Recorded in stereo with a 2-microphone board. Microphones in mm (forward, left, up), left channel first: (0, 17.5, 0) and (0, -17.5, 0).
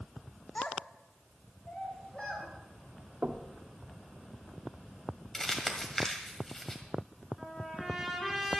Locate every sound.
0.6 s a child speaking: 40° left (ahead or behind), 0.8 m; by 2.5 s 30° left (ahead or behind), 3 m
3.2 s knocking: 45° right (ahead or behind), 0.9 m
5.3 s crumpling: 15° left (ahead or behind), 1.8 m
7.4 s a trumpet: 10° left (ahead or behind), 3.5 m